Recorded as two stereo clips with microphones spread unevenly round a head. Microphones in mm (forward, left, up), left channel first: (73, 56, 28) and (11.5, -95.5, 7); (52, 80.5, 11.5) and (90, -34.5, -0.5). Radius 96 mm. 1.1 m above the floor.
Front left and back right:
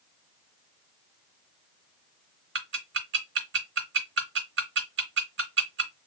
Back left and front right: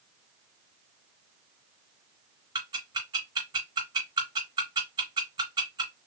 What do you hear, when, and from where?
2.5 s ticking: 140° right, 1.7 m